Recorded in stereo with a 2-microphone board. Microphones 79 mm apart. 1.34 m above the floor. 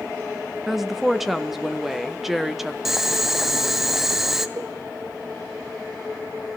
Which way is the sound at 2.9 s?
5° right (ahead or behind).